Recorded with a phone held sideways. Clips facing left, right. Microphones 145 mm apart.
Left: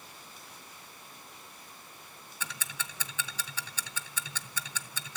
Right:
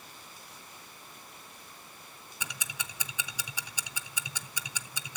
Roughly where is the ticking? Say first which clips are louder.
Left 1 dB; centre.